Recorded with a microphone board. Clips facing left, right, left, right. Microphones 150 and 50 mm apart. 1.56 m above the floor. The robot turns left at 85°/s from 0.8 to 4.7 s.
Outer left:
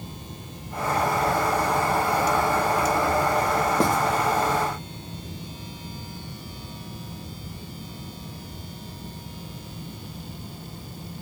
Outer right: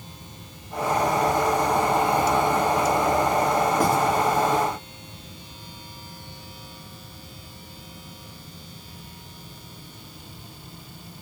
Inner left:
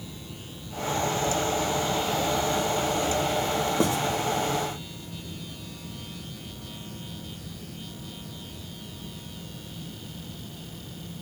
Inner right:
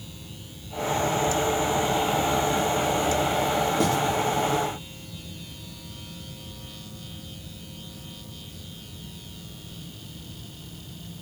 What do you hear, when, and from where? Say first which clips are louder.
3.8 s writing: outer left 1 dB, even; 30° left (ahead or behind), 1.9 m; by 4.0 s 15° left (ahead or behind), 1.9 m